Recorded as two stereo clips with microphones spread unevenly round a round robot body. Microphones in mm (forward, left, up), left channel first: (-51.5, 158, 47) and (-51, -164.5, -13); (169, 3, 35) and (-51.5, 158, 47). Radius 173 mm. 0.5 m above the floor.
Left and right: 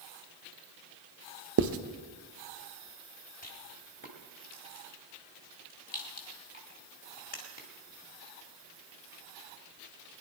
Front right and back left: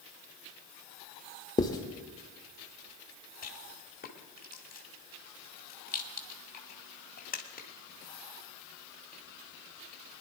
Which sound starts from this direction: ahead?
A rattle, at 3.4 s.